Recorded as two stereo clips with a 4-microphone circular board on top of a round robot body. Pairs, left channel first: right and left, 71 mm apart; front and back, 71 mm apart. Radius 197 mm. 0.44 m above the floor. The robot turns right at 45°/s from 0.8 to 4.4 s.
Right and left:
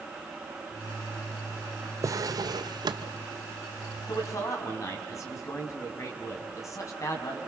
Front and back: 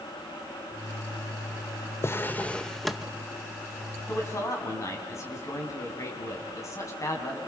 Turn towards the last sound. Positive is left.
turn(degrees=-45)